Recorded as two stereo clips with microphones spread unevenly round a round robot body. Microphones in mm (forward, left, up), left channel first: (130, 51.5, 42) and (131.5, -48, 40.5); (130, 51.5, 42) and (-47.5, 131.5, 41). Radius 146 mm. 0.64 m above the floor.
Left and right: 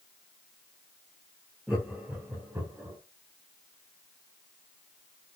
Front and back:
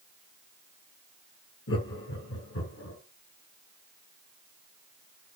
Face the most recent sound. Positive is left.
turn(degrees=-20)